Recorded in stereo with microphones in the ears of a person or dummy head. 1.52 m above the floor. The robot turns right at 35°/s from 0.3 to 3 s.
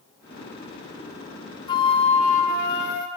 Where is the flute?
25° left, 1.2 m; by 3.1 s 70° left, 1.2 m.